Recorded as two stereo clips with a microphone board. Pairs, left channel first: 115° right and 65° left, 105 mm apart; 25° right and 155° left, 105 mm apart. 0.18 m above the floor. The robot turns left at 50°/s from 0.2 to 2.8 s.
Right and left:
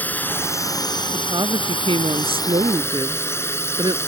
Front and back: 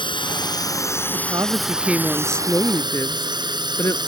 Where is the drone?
40° right; by 4.1 s 170° right.